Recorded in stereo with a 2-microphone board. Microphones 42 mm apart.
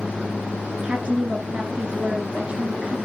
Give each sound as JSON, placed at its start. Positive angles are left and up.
{"t": 0.7, "sound": "a woman speaking", "side_deg": -30, "distance_m": 1.5}